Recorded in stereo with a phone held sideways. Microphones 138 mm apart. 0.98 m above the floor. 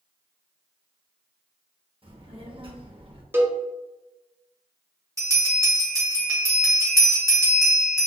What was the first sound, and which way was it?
A child speaking, 40° right (ahead or behind).